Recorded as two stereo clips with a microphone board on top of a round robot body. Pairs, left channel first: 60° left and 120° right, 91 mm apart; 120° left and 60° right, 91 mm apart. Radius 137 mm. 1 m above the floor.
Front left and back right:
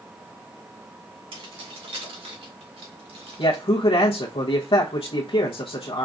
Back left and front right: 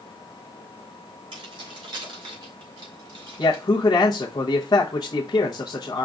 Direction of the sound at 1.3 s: 95° right.